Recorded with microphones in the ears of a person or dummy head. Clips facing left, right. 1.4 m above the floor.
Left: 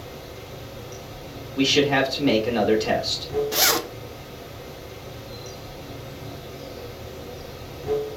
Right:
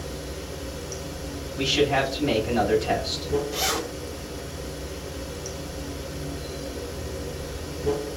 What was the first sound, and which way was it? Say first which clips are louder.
Running water: right 3 dB; 50° right (ahead or behind).